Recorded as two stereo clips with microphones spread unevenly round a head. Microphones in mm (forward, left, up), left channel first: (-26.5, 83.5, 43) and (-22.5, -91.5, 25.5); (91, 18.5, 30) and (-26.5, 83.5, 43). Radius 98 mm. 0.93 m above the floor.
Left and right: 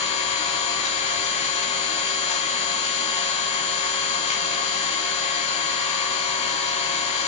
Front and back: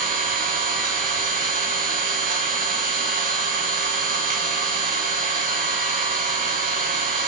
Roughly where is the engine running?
Behind left.